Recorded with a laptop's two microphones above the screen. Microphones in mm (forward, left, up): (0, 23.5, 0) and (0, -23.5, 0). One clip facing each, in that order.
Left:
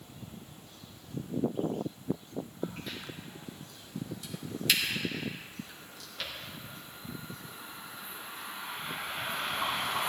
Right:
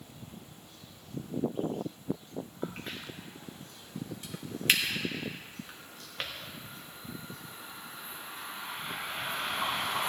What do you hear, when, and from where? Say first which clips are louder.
2.6 s a crack: right 1 dB; 40° right (ahead or behind), 1.3 m